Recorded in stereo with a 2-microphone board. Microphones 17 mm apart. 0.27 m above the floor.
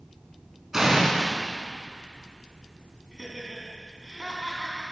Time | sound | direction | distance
0.7 | an explosion | 25° right (ahead or behind) | 2.5 m
3.1 | laughter | 45° right (ahead or behind) | 3 m